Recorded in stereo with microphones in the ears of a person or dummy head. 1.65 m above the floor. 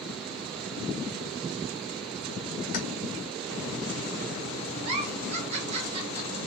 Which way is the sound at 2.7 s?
50° left (ahead or behind).